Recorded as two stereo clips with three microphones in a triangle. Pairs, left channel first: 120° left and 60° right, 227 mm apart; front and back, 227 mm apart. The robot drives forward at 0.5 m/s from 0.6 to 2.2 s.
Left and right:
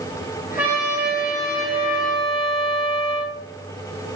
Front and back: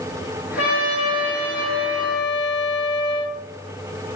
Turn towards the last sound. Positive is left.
turn(degrees=30)